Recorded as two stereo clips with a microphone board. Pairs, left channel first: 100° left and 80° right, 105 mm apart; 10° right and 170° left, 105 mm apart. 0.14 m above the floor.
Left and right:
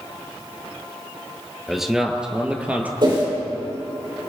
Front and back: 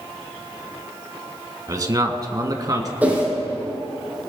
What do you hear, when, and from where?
1.7 s a man speaking: 165° right, 1.5 m; by 2.9 s 150° right, 2.0 m
3.0 s a whoosh: 115° right, 5.5 m